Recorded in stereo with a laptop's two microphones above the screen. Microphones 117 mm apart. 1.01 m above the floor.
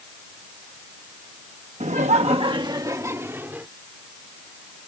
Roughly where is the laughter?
Right.